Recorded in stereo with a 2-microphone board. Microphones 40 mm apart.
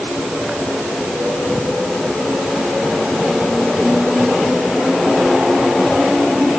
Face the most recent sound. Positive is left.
No sound to turn to.